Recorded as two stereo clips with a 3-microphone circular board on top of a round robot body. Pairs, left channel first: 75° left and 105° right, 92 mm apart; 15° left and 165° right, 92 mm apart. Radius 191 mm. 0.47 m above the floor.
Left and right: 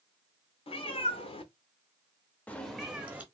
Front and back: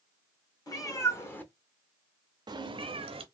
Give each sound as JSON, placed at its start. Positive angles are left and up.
{"t": 0.7, "sound": "a cat meowing", "azimuth_deg": 65, "distance_m": 0.9}